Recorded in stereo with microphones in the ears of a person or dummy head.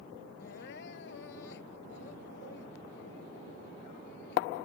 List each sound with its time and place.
0.4 s crying: 70° left (ahead or behind)